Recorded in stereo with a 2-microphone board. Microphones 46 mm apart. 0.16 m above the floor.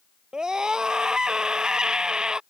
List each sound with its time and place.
0.3 s a scream: 15° right (ahead or behind)